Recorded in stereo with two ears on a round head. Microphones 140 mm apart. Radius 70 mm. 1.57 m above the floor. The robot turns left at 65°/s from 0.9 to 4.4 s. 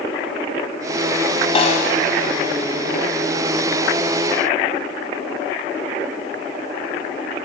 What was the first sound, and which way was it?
A snare drum, 35° left (ahead or behind).